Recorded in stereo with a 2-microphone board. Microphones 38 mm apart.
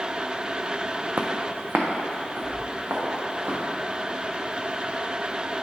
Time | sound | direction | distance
1.2 | footsteps | 55° right (ahead or behind) | 0.6 m